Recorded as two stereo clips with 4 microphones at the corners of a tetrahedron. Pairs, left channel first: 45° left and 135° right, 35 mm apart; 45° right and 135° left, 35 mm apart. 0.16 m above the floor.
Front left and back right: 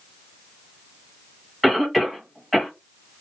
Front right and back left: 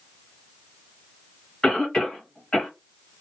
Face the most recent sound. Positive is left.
turn(degrees=-55)